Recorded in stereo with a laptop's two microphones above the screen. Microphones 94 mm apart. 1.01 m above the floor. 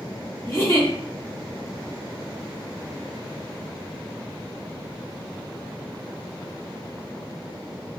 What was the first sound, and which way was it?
A giggle, 30° left (ahead or behind).